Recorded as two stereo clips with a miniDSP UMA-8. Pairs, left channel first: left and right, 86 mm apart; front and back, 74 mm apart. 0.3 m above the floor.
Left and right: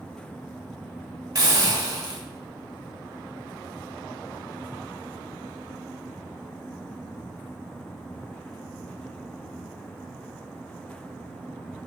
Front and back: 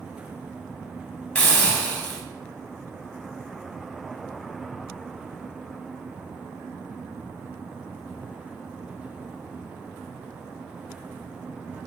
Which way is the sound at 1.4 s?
65° right.